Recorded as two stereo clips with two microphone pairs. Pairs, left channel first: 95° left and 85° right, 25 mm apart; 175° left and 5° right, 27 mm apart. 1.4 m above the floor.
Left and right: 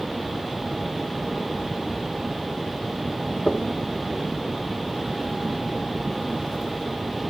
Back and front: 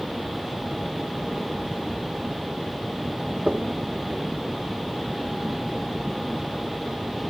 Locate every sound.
3.5 s knocking: 50° left, 1.8 m